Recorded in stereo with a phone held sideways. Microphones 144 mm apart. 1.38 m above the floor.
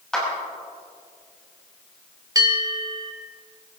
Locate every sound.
0.1 s a clap: 5° left (ahead or behind), 6 m
2.4 s a bell: 25° right (ahead or behind), 1.5 m